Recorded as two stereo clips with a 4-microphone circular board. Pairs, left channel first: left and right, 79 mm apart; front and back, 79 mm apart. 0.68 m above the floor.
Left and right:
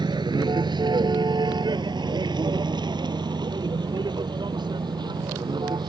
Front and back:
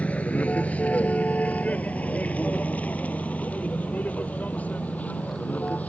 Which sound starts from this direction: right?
A vehicle, at 0.0 s.